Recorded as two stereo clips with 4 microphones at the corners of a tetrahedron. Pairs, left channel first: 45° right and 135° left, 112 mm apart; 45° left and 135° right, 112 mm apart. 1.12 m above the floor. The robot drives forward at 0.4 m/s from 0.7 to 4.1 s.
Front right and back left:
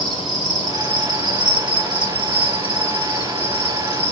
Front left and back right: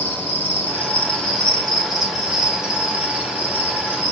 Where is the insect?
110° left, 1.3 m; by 4.1 s 155° left, 2 m.